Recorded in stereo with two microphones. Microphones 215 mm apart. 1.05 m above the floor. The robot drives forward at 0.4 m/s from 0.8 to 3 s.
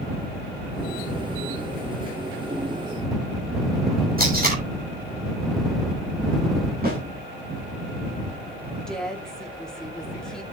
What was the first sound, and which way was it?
Tape being pulled, 45° right (ahead or behind).